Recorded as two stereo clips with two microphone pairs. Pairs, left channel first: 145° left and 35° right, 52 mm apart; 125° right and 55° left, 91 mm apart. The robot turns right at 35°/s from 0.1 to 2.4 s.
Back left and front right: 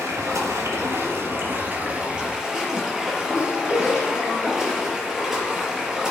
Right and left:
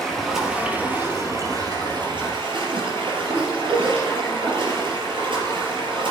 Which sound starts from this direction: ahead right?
Running water, at 0.0 s.